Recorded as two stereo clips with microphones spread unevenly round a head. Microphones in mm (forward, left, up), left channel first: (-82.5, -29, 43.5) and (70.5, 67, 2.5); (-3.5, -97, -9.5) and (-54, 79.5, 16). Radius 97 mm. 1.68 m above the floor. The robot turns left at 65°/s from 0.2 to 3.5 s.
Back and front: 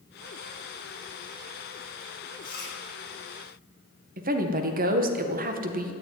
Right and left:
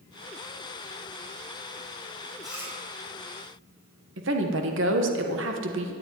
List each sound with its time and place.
2.4 s chewing: 165° right, 5 m; by 2.7 s 175° left, 5 m
4.2 s a woman speaking: 75° left, 1.8 m